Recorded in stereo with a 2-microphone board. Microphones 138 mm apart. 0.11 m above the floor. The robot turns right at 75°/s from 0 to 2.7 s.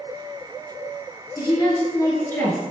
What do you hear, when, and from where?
1.4 s a woman speaking: 25° left (ahead or behind), 1.1 m; by 2.6 s 5° left (ahead or behind), 1.1 m